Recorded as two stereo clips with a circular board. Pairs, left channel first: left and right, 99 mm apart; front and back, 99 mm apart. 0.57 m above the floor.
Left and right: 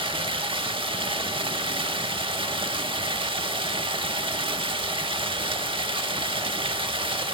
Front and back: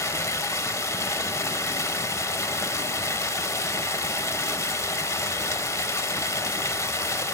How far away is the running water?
About 0.8 m.